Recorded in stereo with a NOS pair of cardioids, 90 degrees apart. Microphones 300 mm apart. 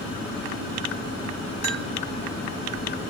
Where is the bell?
60° right, 5.5 m.